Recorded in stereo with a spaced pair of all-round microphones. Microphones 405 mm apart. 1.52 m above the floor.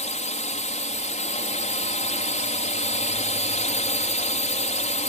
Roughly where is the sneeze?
I don't hear a sneeze.